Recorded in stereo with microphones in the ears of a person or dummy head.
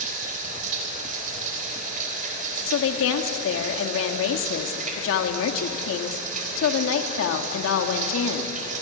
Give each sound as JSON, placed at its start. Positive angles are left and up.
{"t": 0.0, "sound": "running water", "side_deg": -45, "distance_m": 4.0}
{"t": 2.7, "sound": "a woman speaking", "side_deg": 80, "distance_m": 2.5}